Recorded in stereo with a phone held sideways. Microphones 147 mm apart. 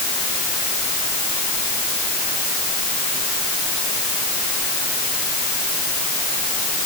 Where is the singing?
No singing in this recording.